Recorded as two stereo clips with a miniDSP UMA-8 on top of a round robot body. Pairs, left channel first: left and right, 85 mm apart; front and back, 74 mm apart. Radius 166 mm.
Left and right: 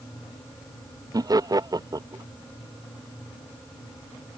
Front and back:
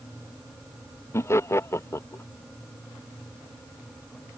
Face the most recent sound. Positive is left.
turn(degrees=-50)